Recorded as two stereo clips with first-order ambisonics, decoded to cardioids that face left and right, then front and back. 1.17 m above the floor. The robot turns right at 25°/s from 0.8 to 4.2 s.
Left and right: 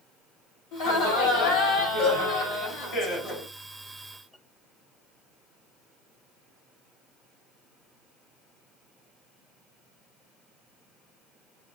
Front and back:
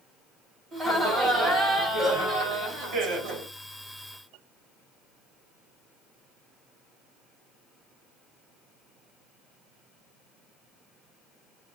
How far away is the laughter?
About 3 m.